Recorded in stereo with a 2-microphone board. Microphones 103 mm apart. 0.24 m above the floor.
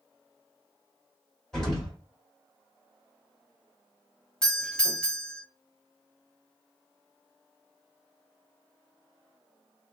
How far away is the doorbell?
About 1.4 m.